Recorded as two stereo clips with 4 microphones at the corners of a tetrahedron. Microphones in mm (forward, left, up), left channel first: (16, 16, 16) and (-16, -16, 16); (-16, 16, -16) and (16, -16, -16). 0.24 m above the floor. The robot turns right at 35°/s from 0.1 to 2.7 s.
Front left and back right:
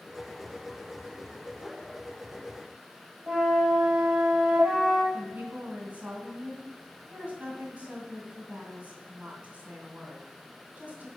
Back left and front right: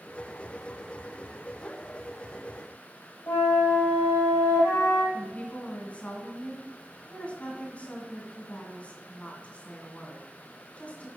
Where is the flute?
150° left, 3.5 m.